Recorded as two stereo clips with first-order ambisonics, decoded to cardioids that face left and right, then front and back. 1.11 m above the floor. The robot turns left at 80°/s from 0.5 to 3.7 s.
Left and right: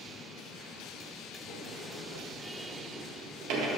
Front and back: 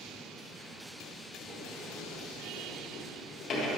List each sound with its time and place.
1.5 s a sliding door: 105° left, 1.7 m; by 3.7 s 75° right, 1.7 m